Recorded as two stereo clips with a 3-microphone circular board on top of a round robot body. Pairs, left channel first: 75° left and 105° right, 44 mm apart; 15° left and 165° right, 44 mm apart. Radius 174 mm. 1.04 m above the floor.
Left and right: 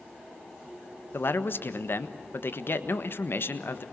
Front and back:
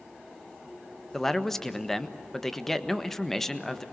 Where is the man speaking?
95° left, 1.6 m.